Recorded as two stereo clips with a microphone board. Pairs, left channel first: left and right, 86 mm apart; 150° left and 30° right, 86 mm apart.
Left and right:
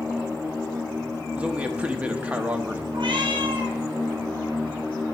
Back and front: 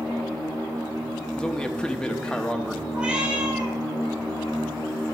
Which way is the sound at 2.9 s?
110° right.